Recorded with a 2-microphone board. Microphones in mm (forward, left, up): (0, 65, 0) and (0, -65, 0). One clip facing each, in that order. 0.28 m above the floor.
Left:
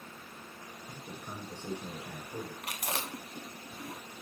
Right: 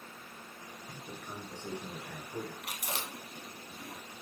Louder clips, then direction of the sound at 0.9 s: Left 1 dB; 15° left (ahead or behind).